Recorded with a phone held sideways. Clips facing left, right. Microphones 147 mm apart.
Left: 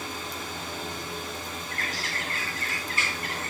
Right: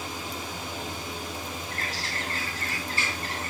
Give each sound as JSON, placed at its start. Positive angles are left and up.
{"t": 0.0, "sound": "a fan", "side_deg": -15, "distance_m": 2.5}
{"t": 1.7, "sound": "a bird", "side_deg": -35, "distance_m": 2.5}